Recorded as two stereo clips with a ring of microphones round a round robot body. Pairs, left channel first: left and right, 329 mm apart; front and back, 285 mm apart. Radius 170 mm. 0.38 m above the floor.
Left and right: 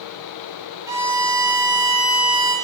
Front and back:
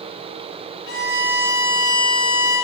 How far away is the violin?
About 1.1 m.